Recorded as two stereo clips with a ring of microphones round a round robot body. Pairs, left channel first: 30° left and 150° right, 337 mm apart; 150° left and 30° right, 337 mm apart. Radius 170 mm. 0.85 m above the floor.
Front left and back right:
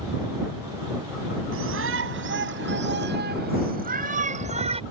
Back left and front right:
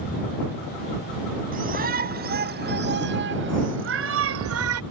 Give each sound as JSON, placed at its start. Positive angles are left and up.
{"t": 1.5, "sound": "a shout", "azimuth_deg": -95}